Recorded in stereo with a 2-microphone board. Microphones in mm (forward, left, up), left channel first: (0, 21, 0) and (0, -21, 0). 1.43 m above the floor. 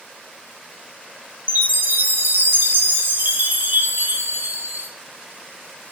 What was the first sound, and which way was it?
A chime, 55° right (ahead or behind).